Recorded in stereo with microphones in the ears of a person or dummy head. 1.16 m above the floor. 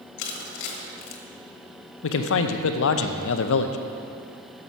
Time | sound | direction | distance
0.2 | crushing | 60° left (ahead or behind) | 1.5 m
2.0 | a man speaking | 70° left (ahead or behind) | 0.7 m